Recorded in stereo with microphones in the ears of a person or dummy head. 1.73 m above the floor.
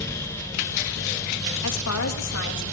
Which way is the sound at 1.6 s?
85° left.